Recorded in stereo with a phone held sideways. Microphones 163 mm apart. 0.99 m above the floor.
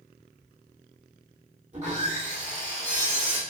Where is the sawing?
45° right (ahead or behind), 1.5 m.